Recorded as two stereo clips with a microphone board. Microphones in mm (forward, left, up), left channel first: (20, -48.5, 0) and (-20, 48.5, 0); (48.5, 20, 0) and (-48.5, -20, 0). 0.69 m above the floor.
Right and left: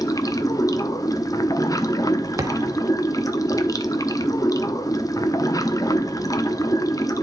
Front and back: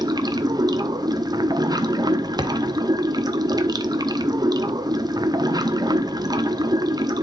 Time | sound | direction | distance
0.0 | running water | 115° right | 0.8 m
2.4 | a thud | 165° left | 1.1 m